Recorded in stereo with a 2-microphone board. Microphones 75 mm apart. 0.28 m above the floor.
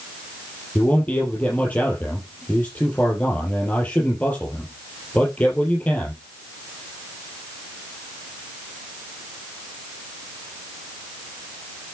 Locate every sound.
0.8 s a man speaking: 20° left (ahead or behind), 5 m